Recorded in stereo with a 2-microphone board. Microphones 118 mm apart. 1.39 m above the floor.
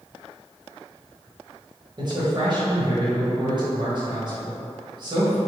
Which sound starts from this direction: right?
A man speaking, at 2.0 s.